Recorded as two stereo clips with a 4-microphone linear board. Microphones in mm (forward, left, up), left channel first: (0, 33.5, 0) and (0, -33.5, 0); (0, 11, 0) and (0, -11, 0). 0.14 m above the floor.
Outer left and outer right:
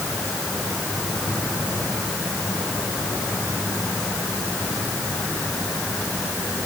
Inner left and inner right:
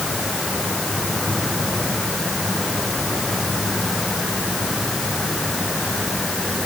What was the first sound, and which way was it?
Only background noise.